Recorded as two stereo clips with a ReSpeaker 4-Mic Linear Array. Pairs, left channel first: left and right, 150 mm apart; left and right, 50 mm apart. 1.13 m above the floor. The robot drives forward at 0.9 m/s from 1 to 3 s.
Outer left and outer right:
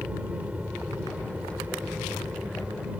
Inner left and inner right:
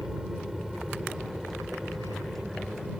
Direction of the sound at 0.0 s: 10° right (ahead or behind).